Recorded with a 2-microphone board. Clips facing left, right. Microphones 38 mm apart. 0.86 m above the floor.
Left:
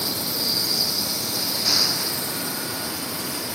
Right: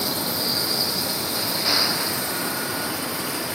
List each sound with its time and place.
0.0 s a vehicle: 20° right (ahead or behind)